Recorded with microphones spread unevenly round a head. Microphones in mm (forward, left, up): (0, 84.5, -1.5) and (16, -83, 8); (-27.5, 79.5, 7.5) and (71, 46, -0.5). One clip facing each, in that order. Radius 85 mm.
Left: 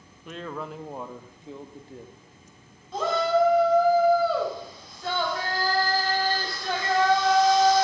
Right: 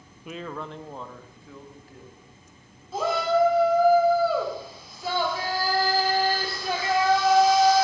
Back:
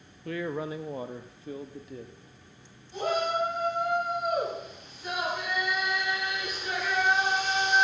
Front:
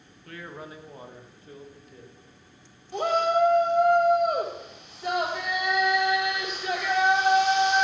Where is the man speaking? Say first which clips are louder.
Even, back 8 dB; 170° right, 0.9 m; by 2.1 s 160° left, 1.6 m.